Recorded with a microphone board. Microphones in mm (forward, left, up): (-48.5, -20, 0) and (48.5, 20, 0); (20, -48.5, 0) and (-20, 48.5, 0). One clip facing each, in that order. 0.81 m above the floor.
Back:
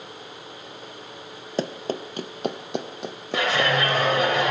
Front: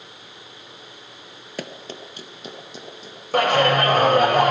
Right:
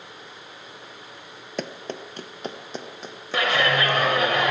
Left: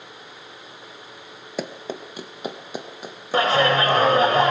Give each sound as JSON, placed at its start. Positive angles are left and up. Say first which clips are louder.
{"t": 1.6, "sound": "running footsteps", "louder": "back 7 dB, left 2 dB", "azimuth_deg": -170, "distance_m": 0.8}
{"t": 3.3, "sound": "a clap", "louder": "front 5 dB, left 4 dB", "azimuth_deg": 55, "distance_m": 4.0}